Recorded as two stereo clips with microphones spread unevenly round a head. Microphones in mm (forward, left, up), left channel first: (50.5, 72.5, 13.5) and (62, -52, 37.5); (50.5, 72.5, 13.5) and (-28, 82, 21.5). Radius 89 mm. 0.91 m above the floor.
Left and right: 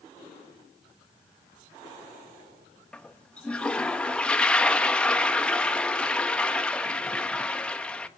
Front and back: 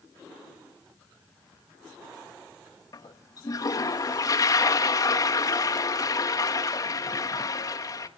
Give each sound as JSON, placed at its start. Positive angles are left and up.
{"t": 2.9, "sound": "a toilet flushing", "azimuth_deg": 20, "distance_m": 1.4}